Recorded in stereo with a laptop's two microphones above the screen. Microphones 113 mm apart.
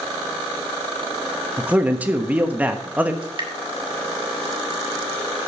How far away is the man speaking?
About 1.1 m.